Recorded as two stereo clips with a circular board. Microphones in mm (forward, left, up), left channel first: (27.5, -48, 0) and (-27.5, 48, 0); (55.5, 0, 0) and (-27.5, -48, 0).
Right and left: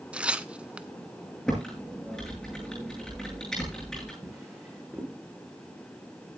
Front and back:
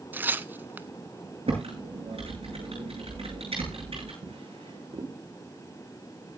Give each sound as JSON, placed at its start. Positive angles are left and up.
{"t": 0.1, "sound": "tearing paper", "azimuth_deg": -175, "distance_m": 0.6}
{"t": 1.5, "sound": "typing on a keyboard", "azimuth_deg": -145, "distance_m": 9.0}
{"t": 4.2, "sound": "a drawer", "azimuth_deg": -155, "distance_m": 4.5}